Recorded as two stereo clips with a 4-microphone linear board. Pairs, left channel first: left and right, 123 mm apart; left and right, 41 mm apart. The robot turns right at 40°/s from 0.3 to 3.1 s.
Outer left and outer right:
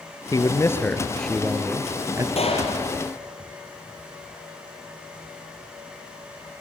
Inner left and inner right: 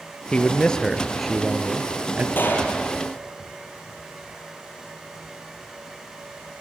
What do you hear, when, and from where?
0.3 s a man speaking: 135° left, 1.7 m; by 2.3 s 145° right, 1.7 m
2.4 s a gunshot: 60° left (ahead or behind), 3.5 m; by 2.8 s 45° left (ahead or behind), 3.5 m